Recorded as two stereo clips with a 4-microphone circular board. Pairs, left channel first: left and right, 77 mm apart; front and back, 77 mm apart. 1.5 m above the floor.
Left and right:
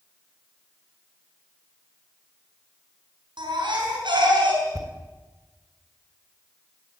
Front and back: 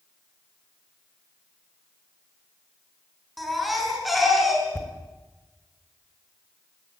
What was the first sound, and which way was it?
A baby crying, 90° right.